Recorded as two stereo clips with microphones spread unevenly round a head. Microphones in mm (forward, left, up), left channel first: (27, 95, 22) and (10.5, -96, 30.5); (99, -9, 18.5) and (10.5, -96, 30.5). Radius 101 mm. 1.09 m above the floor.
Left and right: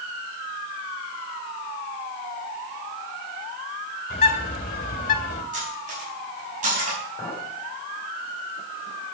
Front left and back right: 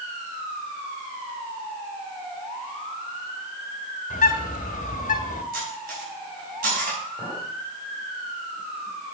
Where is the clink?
160° left, 5 m.